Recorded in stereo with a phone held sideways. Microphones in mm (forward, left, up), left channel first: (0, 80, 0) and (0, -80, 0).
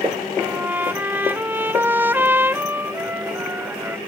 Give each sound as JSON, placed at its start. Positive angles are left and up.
{"t": 0.4, "sound": "a trumpet", "side_deg": -15}